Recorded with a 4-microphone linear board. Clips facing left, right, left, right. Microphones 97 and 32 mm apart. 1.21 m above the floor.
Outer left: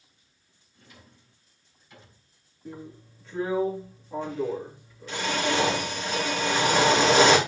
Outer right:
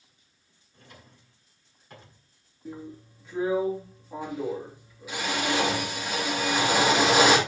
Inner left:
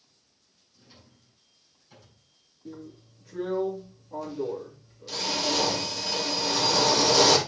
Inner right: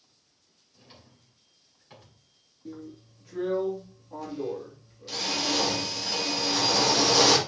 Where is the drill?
10° right (ahead or behind), 2.5 m.